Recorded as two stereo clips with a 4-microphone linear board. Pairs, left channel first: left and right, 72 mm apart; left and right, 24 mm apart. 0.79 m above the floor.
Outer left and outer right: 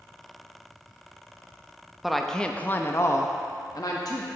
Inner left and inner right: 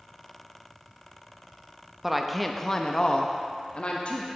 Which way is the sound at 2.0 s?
5° right (ahead or behind).